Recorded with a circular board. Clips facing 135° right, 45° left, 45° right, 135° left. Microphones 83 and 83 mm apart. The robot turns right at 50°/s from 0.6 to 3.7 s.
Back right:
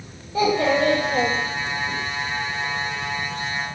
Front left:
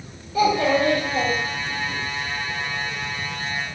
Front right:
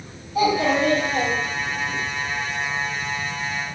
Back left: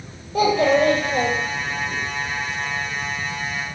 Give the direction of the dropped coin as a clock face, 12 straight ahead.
No dropped coin in this recording.